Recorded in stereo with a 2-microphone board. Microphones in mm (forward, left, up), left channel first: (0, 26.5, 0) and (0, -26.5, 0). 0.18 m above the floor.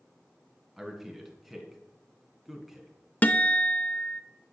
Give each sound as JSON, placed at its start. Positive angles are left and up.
{"t": 0.8, "sound": "a man speaking", "side_deg": 0, "distance_m": 2.5}
{"t": 3.2, "sound": "a guitar", "side_deg": 30, "distance_m": 0.7}